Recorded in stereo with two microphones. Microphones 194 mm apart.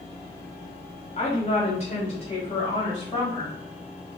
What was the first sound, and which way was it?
A woman speaking, 35° left (ahead or behind).